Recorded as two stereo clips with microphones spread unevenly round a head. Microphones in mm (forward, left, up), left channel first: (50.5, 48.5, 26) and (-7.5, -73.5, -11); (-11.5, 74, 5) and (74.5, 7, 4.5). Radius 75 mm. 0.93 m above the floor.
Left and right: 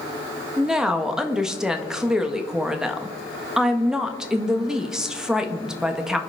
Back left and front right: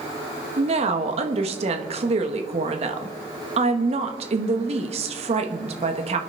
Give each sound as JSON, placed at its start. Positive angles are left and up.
{"t": 0.6, "sound": "a woman speaking", "azimuth_deg": -40, "distance_m": 1.5}